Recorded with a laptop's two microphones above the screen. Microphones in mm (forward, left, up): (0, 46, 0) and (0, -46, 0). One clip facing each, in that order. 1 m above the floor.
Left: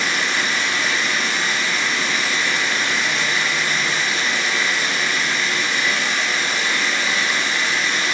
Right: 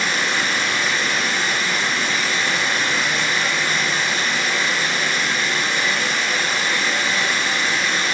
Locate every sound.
0.0 s running water: 40° right (ahead or behind), 0.9 m